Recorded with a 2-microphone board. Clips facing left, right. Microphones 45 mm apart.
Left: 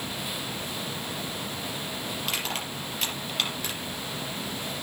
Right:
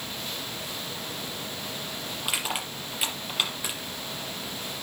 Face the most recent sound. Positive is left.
turn(degrees=-10)  # may be behind; listen again after turning